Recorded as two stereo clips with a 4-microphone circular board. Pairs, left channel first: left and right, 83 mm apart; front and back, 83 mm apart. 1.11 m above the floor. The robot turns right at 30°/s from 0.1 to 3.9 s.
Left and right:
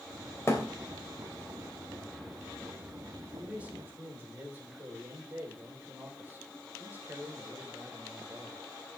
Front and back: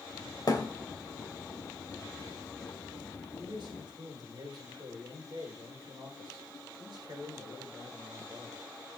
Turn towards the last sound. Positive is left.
turn(degrees=-155)